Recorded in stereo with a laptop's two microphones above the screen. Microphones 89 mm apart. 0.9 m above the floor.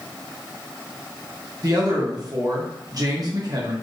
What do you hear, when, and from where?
1.6 s a man speaking: 45° right (ahead or behind), 0.9 m